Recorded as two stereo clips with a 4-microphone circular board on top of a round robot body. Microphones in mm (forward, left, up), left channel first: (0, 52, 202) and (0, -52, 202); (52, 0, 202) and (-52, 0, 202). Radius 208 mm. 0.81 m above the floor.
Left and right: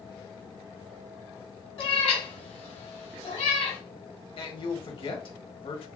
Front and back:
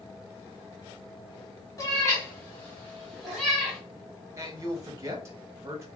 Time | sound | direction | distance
1.8 | a cat meowing | 60° left | 1.7 m
4.4 | a man speaking | 120° left | 1.5 m